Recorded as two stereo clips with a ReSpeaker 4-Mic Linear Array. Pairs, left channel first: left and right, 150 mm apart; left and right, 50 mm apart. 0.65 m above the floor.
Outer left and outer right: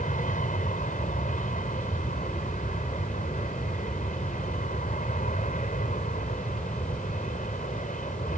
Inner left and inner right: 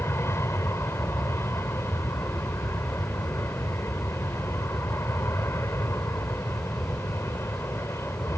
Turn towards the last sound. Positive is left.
turn(degrees=60)  # may be behind; listen again after turning